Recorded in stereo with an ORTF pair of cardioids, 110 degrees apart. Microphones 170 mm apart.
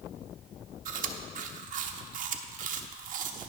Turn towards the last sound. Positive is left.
turn(degrees=-55)